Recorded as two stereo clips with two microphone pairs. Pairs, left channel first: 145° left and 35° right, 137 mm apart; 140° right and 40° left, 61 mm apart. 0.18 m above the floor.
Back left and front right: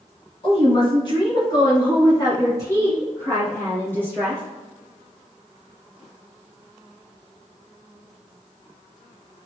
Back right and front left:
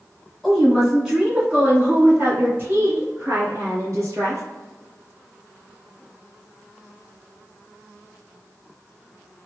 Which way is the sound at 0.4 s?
130° left.